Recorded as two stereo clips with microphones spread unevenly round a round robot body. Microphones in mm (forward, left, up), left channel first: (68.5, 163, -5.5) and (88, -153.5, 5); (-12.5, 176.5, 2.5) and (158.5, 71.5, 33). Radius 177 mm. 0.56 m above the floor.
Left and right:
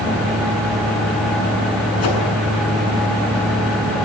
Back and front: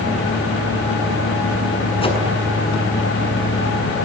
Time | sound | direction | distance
2.0 | a whoosh | 85° left | 7.5 m